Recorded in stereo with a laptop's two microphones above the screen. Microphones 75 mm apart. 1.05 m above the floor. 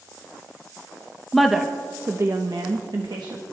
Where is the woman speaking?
5° left (ahead or behind), 1.1 m; by 3.4 s 75° right (ahead or behind), 1.6 m.